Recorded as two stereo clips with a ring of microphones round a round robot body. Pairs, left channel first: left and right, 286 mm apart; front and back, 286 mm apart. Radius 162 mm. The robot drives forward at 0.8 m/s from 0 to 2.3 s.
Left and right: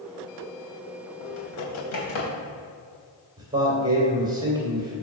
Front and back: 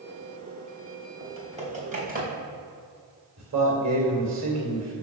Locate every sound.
1.2 s typing on a keyboard: 110° left, 3 m; by 2.3 s 120° left, 3.5 m
3.4 s a man speaking: 165° right, 3 m